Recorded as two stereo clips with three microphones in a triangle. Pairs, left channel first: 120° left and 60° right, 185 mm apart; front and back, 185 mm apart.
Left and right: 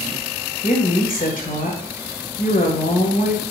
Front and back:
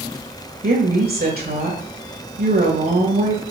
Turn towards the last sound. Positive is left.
turn(degrees=155)